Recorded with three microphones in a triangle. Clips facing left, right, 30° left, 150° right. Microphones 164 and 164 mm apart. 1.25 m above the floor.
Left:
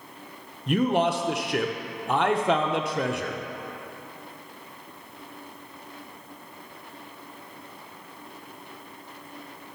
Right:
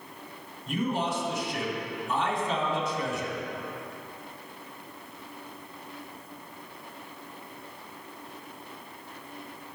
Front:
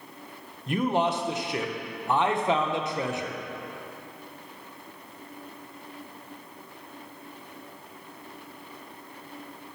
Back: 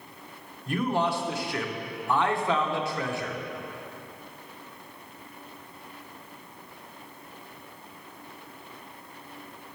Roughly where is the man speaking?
Left.